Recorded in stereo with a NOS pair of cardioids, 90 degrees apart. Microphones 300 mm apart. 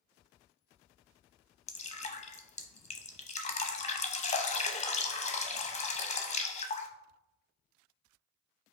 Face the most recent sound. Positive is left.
turn(degrees=25)